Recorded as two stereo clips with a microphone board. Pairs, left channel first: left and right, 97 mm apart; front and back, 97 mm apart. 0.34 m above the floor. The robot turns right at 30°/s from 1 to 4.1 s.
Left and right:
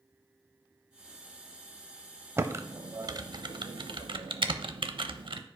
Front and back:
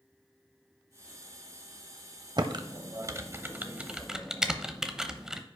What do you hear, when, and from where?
2.4 s typing on a keyboard: 150° right, 0.6 m; by 5.4 s 95° right, 0.6 m